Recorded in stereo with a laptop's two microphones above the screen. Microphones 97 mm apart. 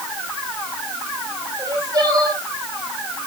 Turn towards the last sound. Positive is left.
turn(degrees=-40)  # may be behind; listen again after turning